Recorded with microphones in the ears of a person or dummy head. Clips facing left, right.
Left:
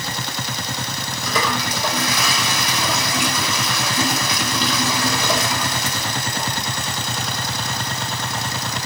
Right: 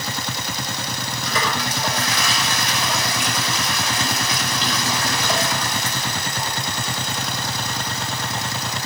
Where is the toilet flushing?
80° left, 5.5 m.